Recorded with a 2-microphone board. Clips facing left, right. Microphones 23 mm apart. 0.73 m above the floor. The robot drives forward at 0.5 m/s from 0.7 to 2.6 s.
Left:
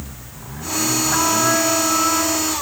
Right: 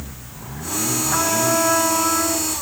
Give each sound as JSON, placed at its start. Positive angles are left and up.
{"t": 1.1, "sound": "a trumpet", "side_deg": -5, "distance_m": 1.7}